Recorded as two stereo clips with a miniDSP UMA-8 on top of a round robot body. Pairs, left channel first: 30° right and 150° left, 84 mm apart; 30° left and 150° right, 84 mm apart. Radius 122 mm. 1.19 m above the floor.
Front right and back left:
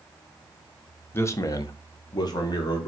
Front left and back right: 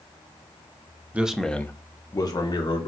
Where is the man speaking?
85° right, 0.8 m; by 2.9 s 5° left, 1.6 m.